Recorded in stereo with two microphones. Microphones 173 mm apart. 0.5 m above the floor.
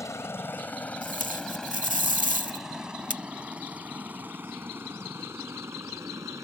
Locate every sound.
0.0 s a helicopter: 15° left (ahead or behind); by 6.4 s 15° right (ahead or behind)
1.0 s tape being pulled: 50° right (ahead or behind)